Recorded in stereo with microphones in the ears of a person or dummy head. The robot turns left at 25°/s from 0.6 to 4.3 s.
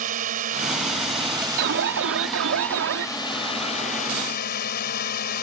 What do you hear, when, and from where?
0.0 s a drone: 135° right; by 5.4 s 130° left
1.6 s an alarm: 70° right; by 3.1 s 105° right